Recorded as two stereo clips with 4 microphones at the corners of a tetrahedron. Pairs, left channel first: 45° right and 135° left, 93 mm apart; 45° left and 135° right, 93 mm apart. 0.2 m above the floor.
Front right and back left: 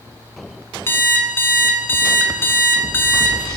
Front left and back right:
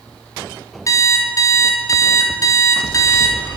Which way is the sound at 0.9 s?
10° left.